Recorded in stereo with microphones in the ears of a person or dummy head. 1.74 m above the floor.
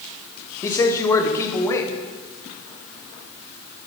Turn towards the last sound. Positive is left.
turn(degrees=20)  # may be behind; listen again after turning